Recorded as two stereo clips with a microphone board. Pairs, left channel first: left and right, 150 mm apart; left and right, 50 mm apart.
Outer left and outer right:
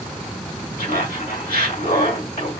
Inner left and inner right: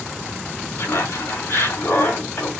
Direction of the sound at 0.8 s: 80° left.